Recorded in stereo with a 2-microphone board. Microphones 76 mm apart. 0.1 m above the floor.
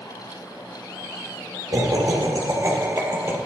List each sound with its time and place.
1.7 s laughter: 55° right (ahead or behind), 3 m; by 3.4 s 35° right (ahead or behind), 3 m